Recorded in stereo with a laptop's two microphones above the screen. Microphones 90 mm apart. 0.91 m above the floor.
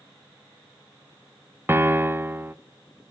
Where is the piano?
25° right (ahead or behind), 0.5 m.